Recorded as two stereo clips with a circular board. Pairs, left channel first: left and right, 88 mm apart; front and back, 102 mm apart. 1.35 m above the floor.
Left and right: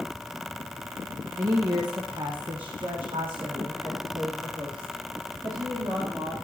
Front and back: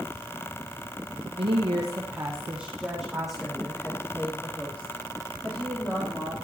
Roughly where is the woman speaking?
Behind right.